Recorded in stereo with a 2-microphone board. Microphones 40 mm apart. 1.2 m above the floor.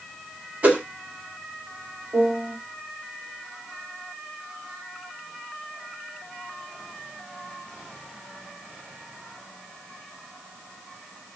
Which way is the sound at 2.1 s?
60° right (ahead or behind).